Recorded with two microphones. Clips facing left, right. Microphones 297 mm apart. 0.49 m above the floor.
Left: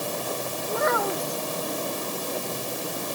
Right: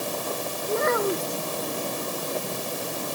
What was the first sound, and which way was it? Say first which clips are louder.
A child speaking: right 3 dB; 30° right (ahead or behind).